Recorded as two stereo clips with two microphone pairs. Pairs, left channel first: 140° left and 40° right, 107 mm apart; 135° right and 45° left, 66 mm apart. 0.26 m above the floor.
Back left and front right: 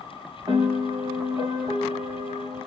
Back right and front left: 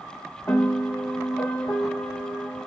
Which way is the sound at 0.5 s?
90° right.